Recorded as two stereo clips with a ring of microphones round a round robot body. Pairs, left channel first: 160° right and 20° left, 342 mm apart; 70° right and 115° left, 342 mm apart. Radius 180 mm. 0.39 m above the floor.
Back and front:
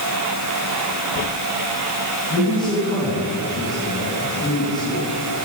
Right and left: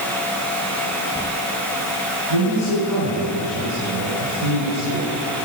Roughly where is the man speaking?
Behind left.